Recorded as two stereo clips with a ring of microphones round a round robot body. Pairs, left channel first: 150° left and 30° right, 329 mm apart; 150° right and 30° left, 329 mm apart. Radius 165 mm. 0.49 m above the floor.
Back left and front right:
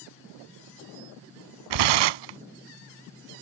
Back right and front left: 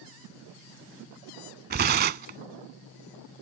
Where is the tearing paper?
30° right.